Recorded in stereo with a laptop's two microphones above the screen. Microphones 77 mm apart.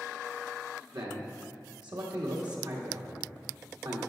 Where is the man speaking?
75° right (ahead or behind), 1.6 m.